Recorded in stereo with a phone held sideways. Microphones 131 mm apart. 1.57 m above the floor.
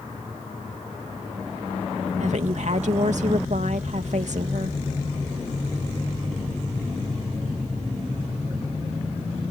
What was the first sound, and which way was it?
A woman speaking, 65° right (ahead or behind).